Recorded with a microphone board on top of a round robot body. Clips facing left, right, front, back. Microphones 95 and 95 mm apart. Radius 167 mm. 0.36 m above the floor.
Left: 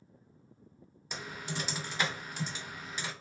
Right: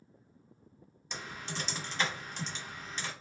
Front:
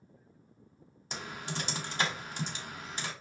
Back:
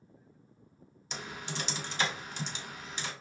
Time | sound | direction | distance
1.1 | typing on a keyboard | 10° left | 1.8 m